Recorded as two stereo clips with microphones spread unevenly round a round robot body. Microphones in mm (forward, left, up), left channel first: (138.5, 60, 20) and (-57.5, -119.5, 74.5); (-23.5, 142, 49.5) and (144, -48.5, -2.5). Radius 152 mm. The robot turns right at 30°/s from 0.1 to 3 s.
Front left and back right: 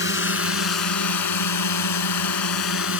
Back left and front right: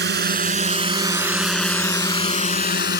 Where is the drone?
Straight ahead; by 3.0 s 85° left.